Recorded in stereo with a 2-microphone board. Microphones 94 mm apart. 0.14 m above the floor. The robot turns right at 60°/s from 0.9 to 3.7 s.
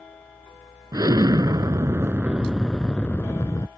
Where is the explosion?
105° right; by 3.7 s 60° left.